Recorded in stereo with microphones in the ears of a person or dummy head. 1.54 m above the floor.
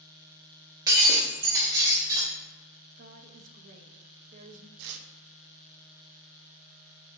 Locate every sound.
0.9 s breaking glass: 20° right (ahead or behind), 1.5 m
3.0 s a woman speaking: 45° right (ahead or behind), 0.7 m
4.8 s tearing paper: 65° right (ahead or behind), 0.6 m